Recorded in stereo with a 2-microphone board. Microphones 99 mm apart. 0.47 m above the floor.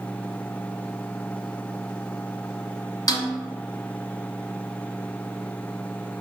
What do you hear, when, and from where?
3.1 s a snare drum: 45° left (ahead or behind), 0.9 m